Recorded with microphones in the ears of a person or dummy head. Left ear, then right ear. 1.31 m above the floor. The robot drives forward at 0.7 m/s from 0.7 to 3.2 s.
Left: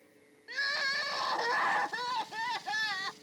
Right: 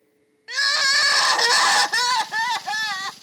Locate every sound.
0.5 s crying: 45° right (ahead or behind); by 3.1 s 30° right (ahead or behind)